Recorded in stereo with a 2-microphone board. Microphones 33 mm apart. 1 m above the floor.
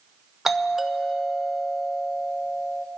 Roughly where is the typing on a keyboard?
No typing on a keyboard in this recording.